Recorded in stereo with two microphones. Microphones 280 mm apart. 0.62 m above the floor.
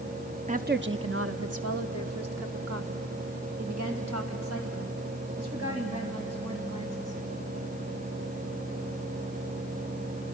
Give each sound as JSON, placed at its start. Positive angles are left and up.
{"t": 0.5, "sound": "a woman speaking", "side_deg": -25, "distance_m": 0.6}